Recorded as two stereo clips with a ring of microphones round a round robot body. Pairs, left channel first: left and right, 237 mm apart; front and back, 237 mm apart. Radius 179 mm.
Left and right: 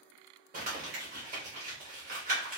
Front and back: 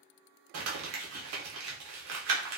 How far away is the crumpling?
About 0.6 m.